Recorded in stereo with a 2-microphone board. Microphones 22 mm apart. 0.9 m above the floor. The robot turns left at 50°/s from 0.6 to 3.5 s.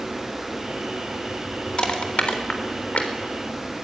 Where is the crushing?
45° left (ahead or behind), 3.5 m; by 3.1 s 65° left (ahead or behind), 3.5 m.